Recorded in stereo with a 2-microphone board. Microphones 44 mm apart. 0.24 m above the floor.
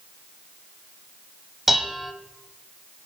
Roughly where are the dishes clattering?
Centre.